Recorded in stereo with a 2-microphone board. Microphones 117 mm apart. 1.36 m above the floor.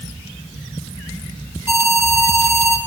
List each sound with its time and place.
1.7 s an alarm: 20° right (ahead or behind), 5.5 m